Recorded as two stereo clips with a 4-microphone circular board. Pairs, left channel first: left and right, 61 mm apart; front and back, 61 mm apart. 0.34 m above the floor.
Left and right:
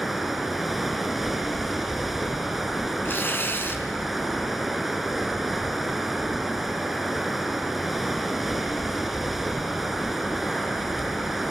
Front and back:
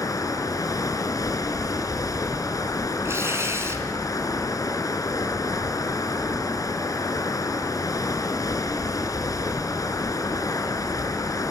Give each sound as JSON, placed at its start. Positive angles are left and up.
{"t": 0.0, "sound": "running water", "azimuth_deg": 0, "distance_m": 2.0}
{"t": 3.0, "sound": "tearing paper", "azimuth_deg": 140, "distance_m": 3.5}